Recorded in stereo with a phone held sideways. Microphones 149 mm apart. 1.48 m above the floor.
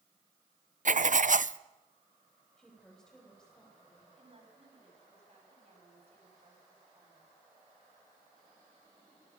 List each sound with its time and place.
0.8 s writing: 60° right (ahead or behind), 0.6 m
2.6 s a woman speaking: 5° left (ahead or behind), 9 m
4.2 s a woman speaking: 45° right (ahead or behind), 8 m